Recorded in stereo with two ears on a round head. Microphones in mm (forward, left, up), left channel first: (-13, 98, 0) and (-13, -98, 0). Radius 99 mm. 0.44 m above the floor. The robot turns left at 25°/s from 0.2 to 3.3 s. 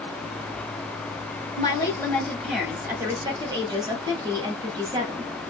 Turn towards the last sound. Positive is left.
turn(degrees=-20)